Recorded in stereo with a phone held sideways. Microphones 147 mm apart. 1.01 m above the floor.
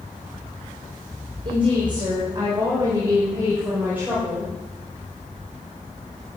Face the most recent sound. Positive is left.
turn(degrees=-5)  # may be behind; listen again after turning